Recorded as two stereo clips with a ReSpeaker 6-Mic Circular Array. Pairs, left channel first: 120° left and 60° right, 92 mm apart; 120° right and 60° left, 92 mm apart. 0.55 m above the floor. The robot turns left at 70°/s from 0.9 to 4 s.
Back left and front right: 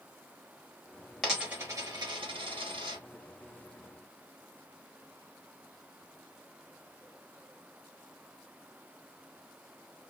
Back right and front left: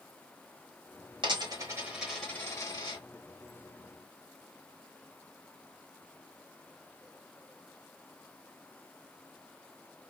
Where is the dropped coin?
35° left, 1.2 m; by 3.0 s 90° right, 1.2 m.